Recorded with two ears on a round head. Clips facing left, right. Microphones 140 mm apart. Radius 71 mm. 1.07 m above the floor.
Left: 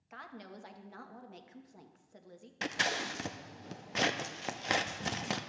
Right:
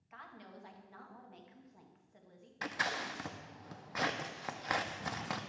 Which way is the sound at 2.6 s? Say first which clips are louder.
Left 3 dB; 25° left (ahead or behind).